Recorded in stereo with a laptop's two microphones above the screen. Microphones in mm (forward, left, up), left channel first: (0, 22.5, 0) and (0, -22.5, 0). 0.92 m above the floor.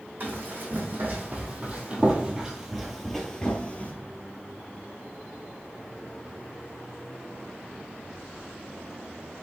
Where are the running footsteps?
45° right (ahead or behind), 2 m; by 3.9 s 30° left (ahead or behind), 1.0 m.